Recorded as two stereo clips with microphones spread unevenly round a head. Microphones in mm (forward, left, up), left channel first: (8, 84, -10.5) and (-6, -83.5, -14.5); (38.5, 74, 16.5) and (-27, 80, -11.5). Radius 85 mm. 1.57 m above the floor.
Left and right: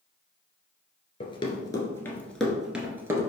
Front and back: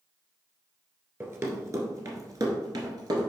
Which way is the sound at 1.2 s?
110° left.